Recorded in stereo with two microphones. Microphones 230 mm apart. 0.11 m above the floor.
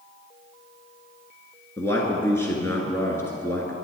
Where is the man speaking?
10° left (ahead or behind), 1.7 m.